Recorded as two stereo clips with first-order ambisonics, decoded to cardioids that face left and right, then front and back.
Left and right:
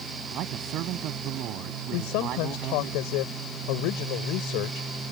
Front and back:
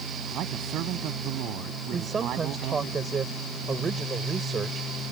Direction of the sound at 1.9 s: 110° left.